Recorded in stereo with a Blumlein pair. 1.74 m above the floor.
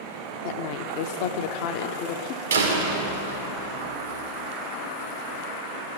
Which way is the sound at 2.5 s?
70° right.